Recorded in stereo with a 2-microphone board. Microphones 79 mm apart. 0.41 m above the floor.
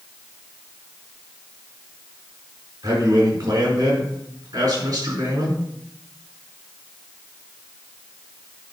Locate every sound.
2.8 s a man speaking: 45° right (ahead or behind), 5 m